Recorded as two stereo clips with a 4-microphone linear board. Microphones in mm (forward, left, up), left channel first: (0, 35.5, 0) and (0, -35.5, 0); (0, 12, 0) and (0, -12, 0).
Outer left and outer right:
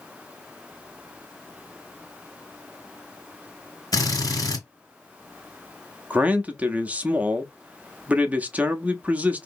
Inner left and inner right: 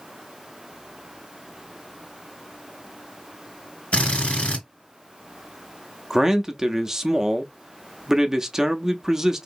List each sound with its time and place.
3.9 s a drill: 55° left (ahead or behind), 2 m
6.1 s a man speaking: 20° right (ahead or behind), 0.6 m